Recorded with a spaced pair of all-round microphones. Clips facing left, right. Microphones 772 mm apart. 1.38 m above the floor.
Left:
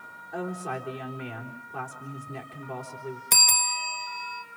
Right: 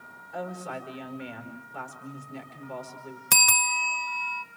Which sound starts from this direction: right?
A bell, at 3.3 s.